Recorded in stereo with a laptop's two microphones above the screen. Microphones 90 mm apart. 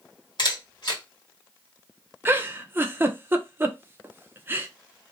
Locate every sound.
0.4 s a camera shutter: 55° left (ahead or behind), 1.6 m
2.2 s a giggle: 25° right (ahead or behind), 0.6 m